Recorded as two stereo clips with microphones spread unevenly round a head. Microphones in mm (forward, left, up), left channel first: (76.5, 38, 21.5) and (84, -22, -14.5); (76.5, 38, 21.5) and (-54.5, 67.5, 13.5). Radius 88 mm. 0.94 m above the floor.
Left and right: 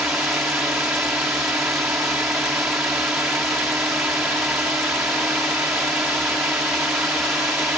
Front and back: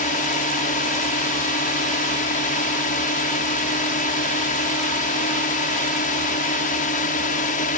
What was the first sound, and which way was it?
A drone, 20° right.